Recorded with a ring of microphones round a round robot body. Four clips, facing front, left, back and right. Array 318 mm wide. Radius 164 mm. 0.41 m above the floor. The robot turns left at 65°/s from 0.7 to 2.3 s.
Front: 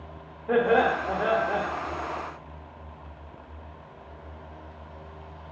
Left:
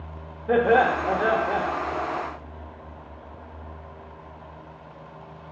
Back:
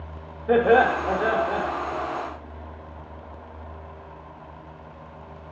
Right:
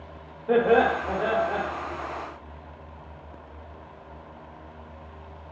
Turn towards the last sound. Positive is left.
turn(degrees=60)